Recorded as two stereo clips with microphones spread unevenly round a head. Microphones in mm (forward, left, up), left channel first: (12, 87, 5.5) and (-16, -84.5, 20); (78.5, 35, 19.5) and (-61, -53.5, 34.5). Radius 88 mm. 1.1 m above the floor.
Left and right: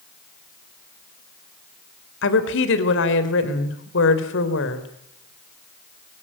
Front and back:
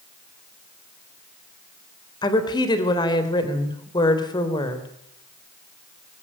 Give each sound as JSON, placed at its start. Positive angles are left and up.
{"t": 2.2, "sound": "a woman speaking", "azimuth_deg": 100, "distance_m": 3.5}